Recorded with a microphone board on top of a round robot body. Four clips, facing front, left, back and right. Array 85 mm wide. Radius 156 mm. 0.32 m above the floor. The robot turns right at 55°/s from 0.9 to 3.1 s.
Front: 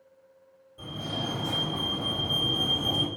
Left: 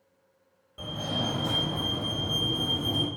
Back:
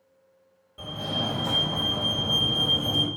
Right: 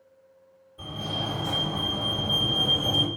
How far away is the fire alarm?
About 3.5 m.